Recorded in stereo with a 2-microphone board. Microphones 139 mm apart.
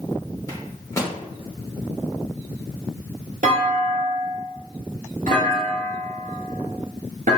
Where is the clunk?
80° right, 1.3 m.